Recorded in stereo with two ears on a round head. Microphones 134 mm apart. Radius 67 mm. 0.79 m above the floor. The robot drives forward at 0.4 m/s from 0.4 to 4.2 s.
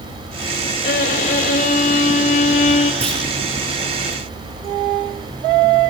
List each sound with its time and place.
0.8 s a violin: 65° left (ahead or behind), 2 m; by 2.9 s 50° left (ahead or behind), 2.5 m
3.0 s a clunk: 40° right (ahead or behind), 9 m